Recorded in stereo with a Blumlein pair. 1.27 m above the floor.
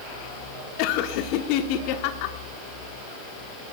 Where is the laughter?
45° left, 1.1 m.